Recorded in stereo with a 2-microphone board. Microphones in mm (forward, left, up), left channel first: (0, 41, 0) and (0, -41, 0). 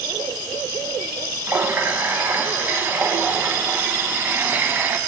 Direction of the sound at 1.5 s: 25° right (ahead or behind).